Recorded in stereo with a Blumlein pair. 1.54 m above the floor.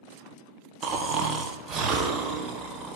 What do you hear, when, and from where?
0.8 s snoring: 30° right, 1.3 m